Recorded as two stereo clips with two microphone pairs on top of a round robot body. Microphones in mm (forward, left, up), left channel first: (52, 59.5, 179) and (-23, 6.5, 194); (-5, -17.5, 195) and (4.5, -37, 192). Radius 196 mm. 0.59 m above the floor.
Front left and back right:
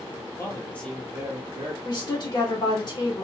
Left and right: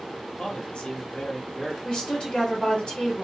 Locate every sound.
0.4 s a man speaking: 80° left, 1.6 m; by 1.7 s 165° right, 1.4 m
1.8 s a woman speaking: 65° left, 2.0 m